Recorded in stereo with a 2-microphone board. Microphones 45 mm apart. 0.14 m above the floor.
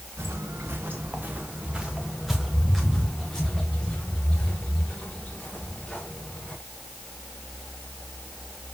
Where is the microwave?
I don't hear a microwave.